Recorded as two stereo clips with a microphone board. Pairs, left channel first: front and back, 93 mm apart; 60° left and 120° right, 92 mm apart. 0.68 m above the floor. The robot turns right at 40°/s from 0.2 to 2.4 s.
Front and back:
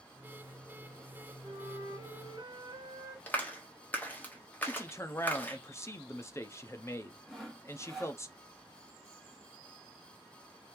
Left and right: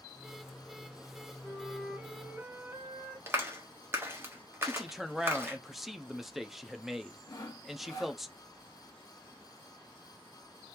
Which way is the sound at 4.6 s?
35° right.